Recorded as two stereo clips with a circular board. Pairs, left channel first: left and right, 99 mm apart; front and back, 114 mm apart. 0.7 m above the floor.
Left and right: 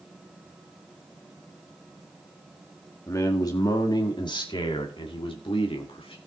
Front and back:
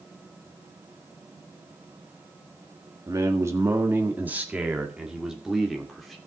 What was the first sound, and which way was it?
A man speaking, 130° left.